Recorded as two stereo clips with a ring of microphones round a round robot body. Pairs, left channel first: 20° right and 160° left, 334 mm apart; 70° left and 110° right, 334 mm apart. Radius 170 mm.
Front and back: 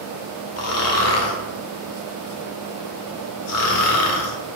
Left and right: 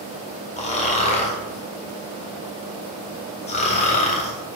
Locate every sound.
0.6 s snoring: straight ahead, 1.5 m